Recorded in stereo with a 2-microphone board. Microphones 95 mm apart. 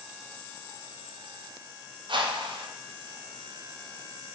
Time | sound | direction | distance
2.1 | a whoosh | 55° right (ahead or behind) | 0.5 m